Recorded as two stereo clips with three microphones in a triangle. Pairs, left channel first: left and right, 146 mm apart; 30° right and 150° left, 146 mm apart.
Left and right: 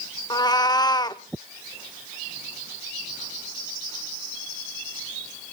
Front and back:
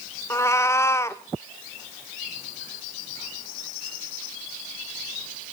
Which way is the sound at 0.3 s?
35° left.